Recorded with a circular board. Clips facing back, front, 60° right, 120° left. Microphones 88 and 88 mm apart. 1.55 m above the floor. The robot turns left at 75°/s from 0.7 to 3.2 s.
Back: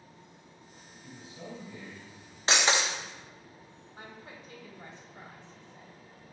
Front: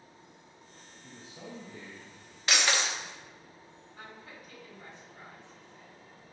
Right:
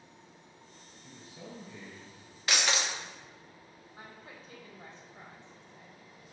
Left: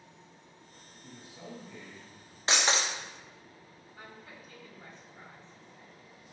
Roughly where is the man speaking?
Left.